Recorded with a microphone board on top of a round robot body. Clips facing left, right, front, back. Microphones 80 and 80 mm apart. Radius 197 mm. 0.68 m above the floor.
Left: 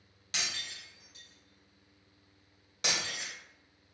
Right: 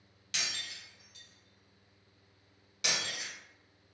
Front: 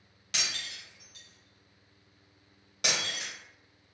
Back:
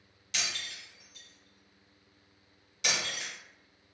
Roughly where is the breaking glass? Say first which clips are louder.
Left 1 dB, even; ahead left.